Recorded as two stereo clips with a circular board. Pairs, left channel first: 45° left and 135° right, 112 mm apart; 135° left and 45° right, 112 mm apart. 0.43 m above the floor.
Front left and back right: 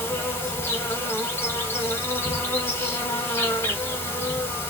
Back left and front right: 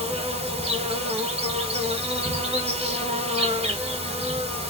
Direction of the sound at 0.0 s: 25° right.